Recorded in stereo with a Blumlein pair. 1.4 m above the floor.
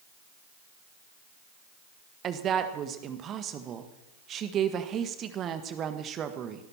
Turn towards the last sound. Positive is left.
turn(degrees=-30)